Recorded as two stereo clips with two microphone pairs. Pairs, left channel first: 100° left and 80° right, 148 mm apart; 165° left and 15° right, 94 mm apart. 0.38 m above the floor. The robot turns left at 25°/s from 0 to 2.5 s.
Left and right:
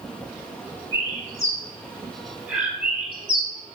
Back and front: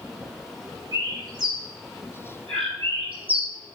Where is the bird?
40° left, 4 m; by 3.5 s straight ahead, 4 m.